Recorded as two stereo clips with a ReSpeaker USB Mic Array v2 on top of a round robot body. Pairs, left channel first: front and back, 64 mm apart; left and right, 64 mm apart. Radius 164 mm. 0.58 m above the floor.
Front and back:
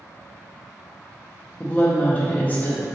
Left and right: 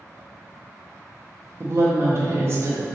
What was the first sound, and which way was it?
A woman speaking, 55° right.